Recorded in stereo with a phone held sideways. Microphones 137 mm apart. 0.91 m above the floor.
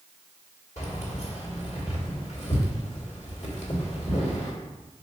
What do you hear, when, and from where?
0.8 s keys jangling: 60° left (ahead or behind), 2.0 m